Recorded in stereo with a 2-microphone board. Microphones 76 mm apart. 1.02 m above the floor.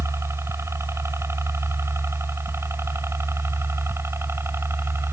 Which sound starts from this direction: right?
A helicopter, at 0.0 s.